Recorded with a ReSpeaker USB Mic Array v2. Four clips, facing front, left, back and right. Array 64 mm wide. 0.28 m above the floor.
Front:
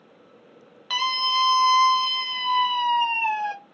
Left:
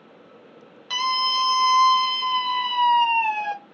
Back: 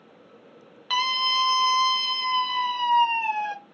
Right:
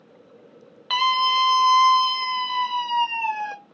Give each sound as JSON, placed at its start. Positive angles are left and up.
{"t": 0.9, "sound": "a scream", "azimuth_deg": -105, "distance_m": 1.2}